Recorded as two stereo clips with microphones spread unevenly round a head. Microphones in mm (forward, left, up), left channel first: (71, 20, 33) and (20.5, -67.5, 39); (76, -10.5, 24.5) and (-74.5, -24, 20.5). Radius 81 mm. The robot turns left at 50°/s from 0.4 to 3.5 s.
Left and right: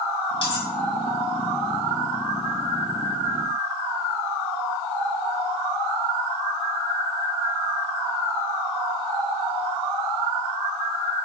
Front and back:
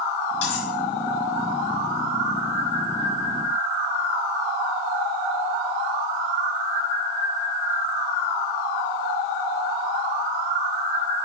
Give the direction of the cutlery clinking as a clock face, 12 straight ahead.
11 o'clock.